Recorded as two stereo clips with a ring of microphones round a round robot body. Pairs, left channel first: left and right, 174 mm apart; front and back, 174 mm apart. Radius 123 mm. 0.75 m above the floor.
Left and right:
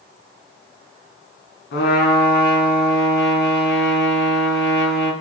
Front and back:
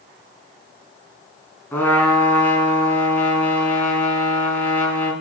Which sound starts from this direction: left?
A trumpet, at 1.7 s.